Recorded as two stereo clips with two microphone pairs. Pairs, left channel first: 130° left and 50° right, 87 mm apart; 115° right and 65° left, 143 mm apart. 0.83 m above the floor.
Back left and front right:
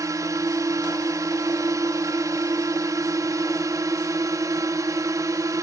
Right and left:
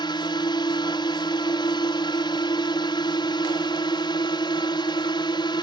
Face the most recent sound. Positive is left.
turn(degrees=-75)